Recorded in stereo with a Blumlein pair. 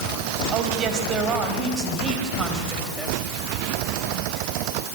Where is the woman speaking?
35° right, 5.5 m; by 3.1 s 10° right, 5 m.